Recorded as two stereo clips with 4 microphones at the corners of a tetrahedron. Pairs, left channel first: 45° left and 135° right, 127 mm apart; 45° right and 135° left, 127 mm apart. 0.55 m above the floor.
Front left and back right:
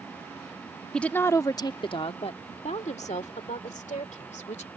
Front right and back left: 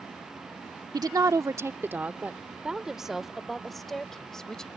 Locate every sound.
0.9 s a woman speaking: 125° left; by 4.7 s 40° left